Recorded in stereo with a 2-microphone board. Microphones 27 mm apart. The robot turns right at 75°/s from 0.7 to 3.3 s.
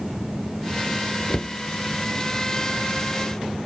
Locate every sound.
1.3 s a cupboard door: 40° left (ahead or behind), 0.6 m; by 1.6 s 35° left (ahead or behind), 0.6 m